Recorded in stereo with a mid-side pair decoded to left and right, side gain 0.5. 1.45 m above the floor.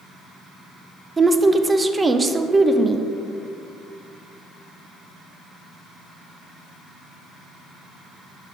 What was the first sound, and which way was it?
A woman speaking, 20° right.